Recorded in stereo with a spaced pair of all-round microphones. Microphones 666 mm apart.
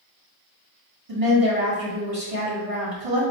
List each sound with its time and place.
1.1 s a woman speaking: 55° right (ahead or behind), 1.9 m